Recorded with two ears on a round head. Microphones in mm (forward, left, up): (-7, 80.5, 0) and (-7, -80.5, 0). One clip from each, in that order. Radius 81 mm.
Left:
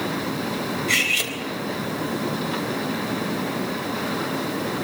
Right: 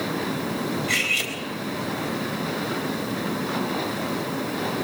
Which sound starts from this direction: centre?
Cutlery clinking, at 0.9 s.